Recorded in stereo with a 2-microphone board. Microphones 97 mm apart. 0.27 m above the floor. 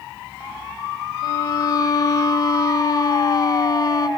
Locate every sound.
1.2 s a violin: 40° left (ahead or behind), 2.5 m